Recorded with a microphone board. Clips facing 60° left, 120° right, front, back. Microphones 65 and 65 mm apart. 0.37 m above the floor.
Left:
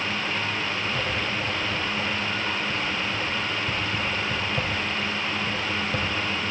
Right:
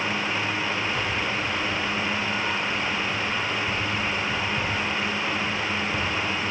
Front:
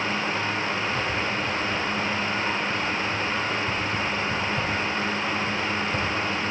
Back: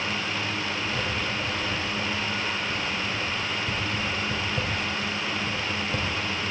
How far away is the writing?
About 9 m.